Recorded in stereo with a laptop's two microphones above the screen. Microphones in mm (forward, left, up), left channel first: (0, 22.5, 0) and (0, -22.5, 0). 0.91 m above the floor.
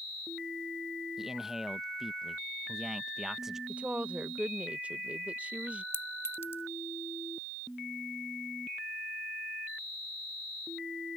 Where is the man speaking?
10° right (ahead or behind).